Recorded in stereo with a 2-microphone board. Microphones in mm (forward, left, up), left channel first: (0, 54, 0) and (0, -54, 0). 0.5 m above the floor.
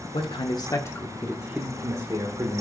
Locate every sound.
0.1 s a man speaking: 50° left (ahead or behind), 1.1 m; by 2.6 s 50° right (ahead or behind), 1.3 m